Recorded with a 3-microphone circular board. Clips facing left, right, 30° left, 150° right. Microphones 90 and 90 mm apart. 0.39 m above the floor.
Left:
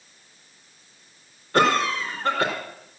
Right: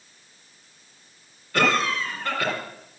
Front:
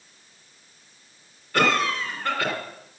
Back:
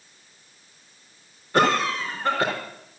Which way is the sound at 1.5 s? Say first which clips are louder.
Left 2 dB, back 2 dB; 145° left.